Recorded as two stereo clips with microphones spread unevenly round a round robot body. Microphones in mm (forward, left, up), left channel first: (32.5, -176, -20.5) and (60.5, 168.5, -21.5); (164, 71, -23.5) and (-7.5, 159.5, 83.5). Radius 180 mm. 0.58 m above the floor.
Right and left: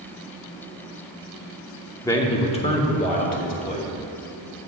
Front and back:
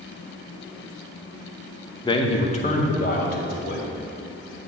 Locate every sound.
2.0 s a man speaking: 15° right, 0.8 m; by 3.9 s 30° right, 2 m